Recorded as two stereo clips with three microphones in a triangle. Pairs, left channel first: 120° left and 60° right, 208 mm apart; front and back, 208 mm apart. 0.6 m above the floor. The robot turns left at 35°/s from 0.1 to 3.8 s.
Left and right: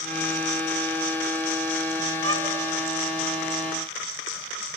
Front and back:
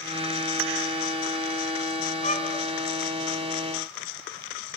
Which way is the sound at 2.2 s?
55° right.